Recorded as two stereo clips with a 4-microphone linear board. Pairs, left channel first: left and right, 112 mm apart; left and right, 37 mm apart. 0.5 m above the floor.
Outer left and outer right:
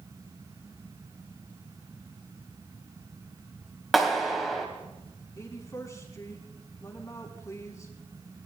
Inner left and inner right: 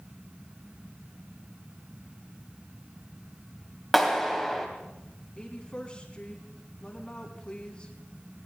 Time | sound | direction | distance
3.9 | a clap | centre (ahead or behind) | 2.5 m
5.4 | a woman speaking | 30° left (ahead or behind) | 4 m